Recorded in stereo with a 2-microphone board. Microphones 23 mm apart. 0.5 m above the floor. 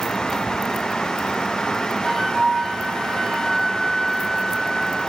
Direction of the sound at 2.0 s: 15° left (ahead or behind).